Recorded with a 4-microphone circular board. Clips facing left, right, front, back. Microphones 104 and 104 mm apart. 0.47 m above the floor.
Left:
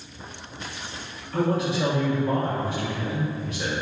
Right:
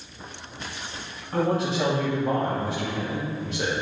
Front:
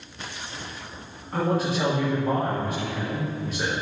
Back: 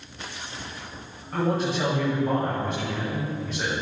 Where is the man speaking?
85° right, 3 m.